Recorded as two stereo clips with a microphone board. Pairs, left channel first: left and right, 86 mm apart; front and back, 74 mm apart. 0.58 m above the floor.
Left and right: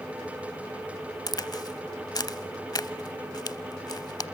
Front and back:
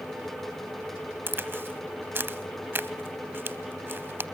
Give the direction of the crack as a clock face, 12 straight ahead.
8 o'clock.